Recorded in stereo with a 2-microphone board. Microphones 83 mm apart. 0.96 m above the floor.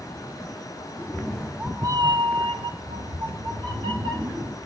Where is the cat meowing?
20° left (ahead or behind), 1.3 m; by 4.5 s 65° right (ahead or behind), 3.5 m.